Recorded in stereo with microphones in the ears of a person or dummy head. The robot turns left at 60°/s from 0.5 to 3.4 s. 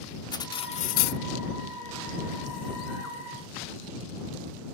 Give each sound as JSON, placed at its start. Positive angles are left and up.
{"t": 0.3, "sound": "cutlery clinking", "azimuth_deg": 155}